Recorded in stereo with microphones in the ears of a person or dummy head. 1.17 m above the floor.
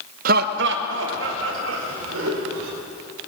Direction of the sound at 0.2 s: 50° right (ahead or behind).